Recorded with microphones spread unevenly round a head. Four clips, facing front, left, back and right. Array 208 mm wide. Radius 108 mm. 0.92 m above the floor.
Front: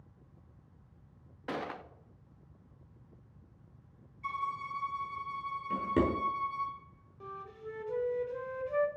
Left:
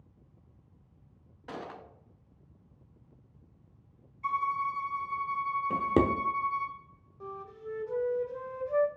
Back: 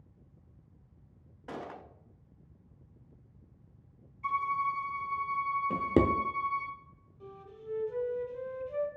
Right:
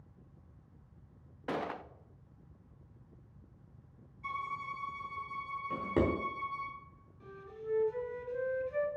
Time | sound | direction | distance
1.5 | a gunshot | 40° right | 0.6 m
4.2 | a violin | 95° left | 3.5 m
5.7 | a drawer | 165° left | 0.8 m
7.2 | a flute | 45° left | 1.5 m